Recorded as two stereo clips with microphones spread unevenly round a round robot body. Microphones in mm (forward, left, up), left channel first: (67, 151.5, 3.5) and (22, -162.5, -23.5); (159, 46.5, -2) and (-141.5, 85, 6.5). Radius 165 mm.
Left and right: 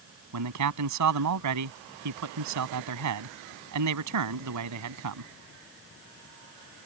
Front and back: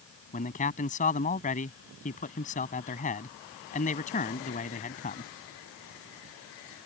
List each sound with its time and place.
0.3 s a man speaking: 75° right